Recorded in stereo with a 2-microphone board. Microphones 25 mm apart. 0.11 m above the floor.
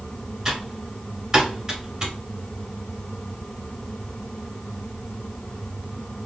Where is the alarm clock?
No alarm clock in this recording.